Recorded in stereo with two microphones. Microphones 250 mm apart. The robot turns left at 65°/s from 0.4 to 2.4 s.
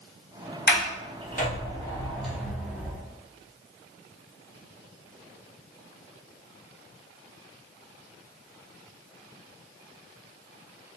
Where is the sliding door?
40° left (ahead or behind), 0.7 m; by 3.0 s 5° right (ahead or behind), 0.7 m.